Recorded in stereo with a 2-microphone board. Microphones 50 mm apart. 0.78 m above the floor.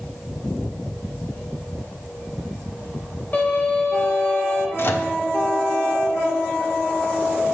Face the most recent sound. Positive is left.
turn(degrees=50)  # may be behind; listen again after turning